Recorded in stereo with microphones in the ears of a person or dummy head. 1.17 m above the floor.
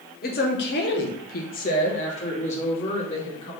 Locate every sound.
0.2 s a woman speaking: 45° left (ahead or behind), 0.9 m; by 3.5 s 30° left (ahead or behind), 1.9 m